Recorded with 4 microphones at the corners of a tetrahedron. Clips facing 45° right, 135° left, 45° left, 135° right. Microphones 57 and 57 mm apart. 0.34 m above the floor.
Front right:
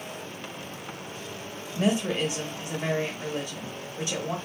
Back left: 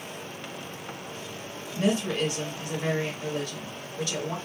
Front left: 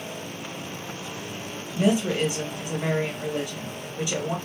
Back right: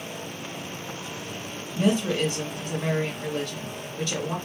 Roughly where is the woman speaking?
Ahead.